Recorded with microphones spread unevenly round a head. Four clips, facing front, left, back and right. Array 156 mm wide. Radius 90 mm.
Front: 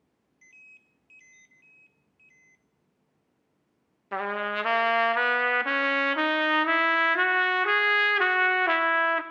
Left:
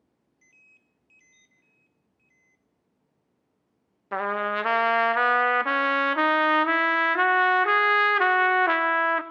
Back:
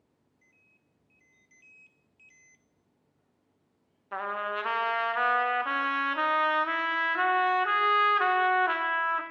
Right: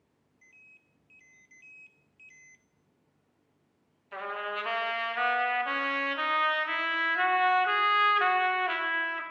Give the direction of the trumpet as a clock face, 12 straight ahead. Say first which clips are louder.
Left 9 dB, front 3 dB; 10 o'clock.